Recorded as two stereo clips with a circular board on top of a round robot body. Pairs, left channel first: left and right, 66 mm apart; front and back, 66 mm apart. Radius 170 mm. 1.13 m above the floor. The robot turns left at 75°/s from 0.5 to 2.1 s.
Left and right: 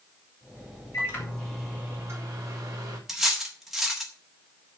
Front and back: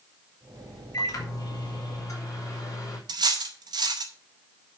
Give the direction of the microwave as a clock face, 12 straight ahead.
11 o'clock.